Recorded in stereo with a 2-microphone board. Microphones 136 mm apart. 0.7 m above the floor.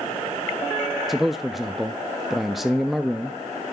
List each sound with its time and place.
1.1 s a man speaking: centre (ahead or behind), 0.5 m